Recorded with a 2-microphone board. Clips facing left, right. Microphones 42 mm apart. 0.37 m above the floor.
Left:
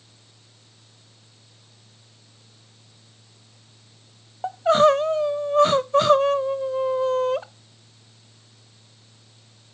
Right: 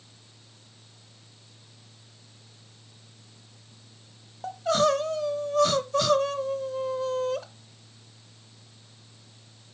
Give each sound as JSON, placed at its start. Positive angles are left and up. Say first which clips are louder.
{"t": 4.4, "sound": "crying", "louder": "left 7 dB", "side_deg": 30, "distance_m": 0.6}